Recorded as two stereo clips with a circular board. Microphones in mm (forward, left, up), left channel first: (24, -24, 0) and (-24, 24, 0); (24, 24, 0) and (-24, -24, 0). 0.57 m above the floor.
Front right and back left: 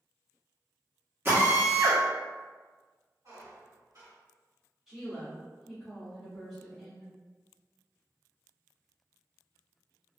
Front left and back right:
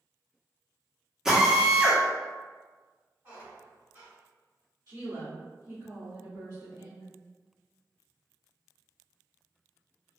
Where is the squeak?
165° left, 1.6 m.